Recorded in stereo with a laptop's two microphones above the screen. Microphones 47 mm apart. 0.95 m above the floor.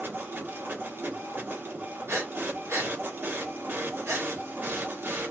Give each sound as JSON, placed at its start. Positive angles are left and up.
{"t": 0.0, "sound": "a machine running", "side_deg": -50, "distance_m": 1.1}
{"t": 2.1, "sound": "breathing", "side_deg": -65, "distance_m": 1.3}